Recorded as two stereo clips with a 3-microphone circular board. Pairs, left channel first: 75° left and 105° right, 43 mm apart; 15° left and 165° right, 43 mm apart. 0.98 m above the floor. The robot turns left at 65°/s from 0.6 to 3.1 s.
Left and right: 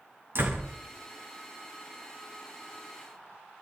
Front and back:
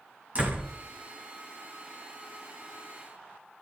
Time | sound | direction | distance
0.3 | a door slam | 110° right | 5 m